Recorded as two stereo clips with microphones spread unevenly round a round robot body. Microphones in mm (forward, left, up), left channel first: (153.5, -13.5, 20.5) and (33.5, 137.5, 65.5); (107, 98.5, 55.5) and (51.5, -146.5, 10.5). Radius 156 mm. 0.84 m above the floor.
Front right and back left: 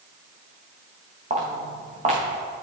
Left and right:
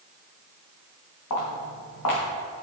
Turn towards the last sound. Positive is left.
turn(degrees=80)